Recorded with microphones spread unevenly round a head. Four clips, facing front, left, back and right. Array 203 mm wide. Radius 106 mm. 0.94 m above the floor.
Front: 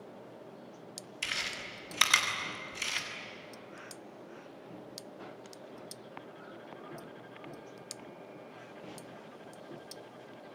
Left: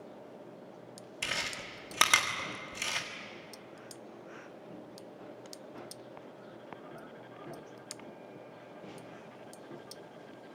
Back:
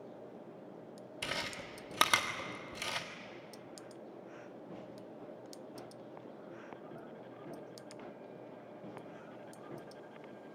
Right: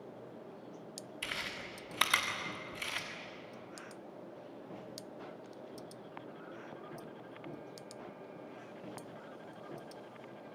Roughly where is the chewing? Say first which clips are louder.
Left 5 dB, even; behind left.